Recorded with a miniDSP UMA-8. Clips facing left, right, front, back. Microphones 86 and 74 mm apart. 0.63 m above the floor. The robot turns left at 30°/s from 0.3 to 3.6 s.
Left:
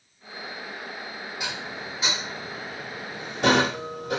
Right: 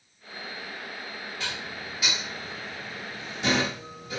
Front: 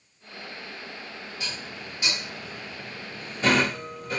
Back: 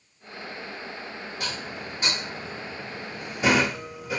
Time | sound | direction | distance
1.4 | dishes clattering | 165° left | 0.9 m